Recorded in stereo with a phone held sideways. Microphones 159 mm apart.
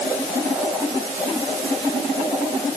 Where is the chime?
I don't hear a chime.